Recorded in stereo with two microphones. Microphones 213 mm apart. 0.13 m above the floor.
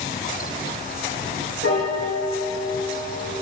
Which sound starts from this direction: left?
A piano, at 1.6 s.